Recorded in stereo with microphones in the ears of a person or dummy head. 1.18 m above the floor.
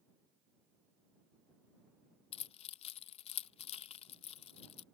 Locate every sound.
2.3 s keys jangling: 35° left (ahead or behind)